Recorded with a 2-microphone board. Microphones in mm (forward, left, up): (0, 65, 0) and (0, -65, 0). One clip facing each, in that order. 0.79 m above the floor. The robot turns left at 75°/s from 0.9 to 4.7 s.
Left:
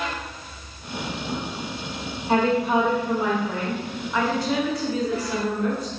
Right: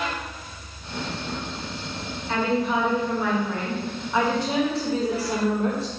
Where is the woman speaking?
120° left, 0.9 m; by 5.9 s 60° right, 0.9 m.